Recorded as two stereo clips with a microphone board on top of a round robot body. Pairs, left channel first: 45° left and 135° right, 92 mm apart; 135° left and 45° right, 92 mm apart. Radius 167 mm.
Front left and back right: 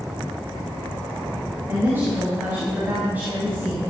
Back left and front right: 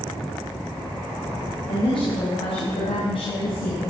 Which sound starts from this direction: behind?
A woman speaking, at 1.7 s.